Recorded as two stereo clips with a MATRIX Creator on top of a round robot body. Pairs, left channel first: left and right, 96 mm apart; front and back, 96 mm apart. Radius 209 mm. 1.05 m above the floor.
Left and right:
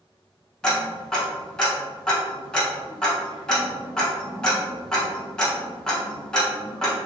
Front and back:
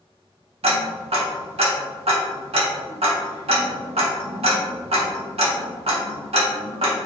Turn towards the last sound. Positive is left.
turn(degrees=175)